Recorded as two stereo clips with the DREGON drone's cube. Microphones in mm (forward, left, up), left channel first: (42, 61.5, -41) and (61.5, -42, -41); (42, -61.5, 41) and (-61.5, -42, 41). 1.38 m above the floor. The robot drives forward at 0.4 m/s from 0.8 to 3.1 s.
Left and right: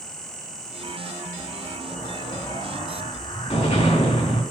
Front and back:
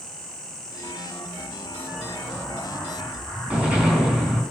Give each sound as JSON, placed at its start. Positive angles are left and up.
{"t": 1.9, "sound": "an explosion", "azimuth_deg": 85, "distance_m": 4.5}